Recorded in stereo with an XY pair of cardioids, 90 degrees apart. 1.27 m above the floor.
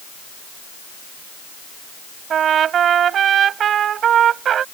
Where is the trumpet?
70° right.